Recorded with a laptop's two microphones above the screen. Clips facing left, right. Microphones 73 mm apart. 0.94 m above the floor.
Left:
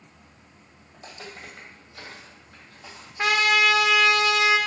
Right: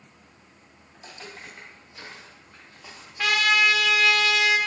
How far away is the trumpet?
About 0.5 m.